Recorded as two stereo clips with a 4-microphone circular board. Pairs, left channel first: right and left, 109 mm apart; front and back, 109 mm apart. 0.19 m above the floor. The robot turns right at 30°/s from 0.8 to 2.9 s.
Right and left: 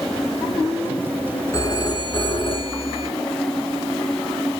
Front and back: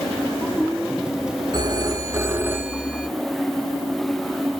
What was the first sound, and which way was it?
A phone ringing, 145° right.